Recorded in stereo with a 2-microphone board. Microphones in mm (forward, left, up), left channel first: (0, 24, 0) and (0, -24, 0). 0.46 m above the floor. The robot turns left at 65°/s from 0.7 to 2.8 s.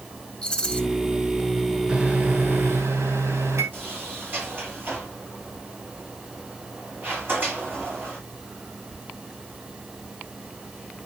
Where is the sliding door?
40° right (ahead or behind), 6 m.